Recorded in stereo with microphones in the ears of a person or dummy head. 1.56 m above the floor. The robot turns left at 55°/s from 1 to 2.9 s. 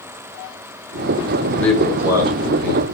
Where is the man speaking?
15° left, 1.0 m; by 2.8 s 55° right, 1.0 m.